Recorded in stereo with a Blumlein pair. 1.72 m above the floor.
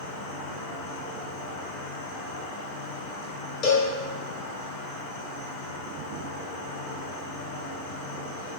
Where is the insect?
55° left, 1.3 m.